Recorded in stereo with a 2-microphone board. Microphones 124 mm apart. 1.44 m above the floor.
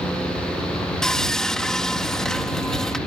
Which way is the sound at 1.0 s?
5° left (ahead or behind).